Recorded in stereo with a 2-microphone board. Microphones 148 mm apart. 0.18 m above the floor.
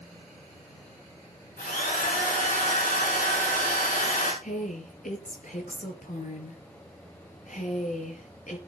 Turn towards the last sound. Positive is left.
turn(degrees=60)  # may be behind; listen again after turning